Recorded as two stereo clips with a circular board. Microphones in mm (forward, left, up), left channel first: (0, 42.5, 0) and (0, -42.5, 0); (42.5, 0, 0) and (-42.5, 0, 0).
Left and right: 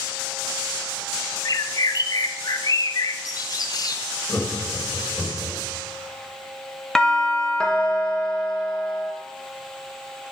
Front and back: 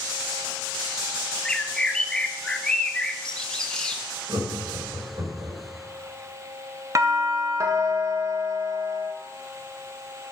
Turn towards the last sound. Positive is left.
turn(degrees=165)